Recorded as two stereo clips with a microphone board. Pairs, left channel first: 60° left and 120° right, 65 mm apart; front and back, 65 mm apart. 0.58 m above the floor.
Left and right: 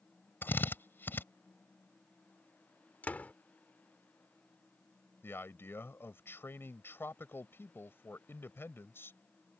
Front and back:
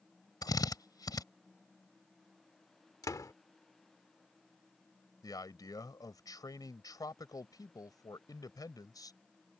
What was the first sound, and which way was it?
A drill, 5° left.